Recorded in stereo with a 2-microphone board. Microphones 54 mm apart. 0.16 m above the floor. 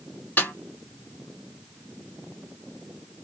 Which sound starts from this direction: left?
A snare drum, at 0.4 s.